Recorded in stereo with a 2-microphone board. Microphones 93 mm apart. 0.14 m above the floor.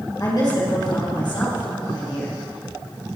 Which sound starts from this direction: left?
A woman speaking, at 0.2 s.